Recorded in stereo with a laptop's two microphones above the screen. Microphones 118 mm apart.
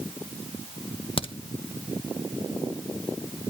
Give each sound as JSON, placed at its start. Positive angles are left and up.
{"t": 1.2, "sound": "a crack", "side_deg": 50, "distance_m": 0.9}